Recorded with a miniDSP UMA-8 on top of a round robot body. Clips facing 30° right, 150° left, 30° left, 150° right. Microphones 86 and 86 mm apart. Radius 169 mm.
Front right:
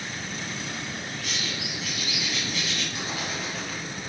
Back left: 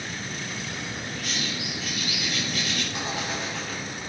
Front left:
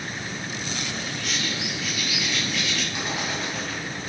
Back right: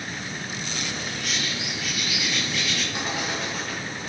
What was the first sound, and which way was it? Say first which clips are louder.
A bird: back left 1 dB, front left 1 dB; 135° left.